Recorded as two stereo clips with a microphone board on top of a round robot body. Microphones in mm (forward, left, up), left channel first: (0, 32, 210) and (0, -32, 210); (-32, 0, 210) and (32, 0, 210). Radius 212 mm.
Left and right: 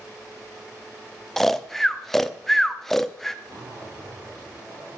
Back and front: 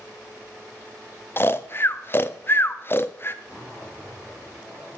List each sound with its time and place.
1.4 s snoring: 170° left, 1.0 m
3.5 s a zipper: 75° right, 7.5 m